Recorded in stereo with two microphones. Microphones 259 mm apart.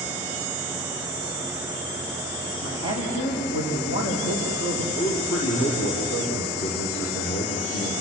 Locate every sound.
2.6 s a man speaking: 75° left (ahead or behind), 8 m; by 4.8 s 80° left, 7.5 m
4.9 s a man speaking: 65° left (ahead or behind), 5.5 m